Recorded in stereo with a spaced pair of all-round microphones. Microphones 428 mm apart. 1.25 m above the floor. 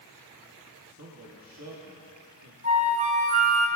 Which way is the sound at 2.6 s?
15° right (ahead or behind).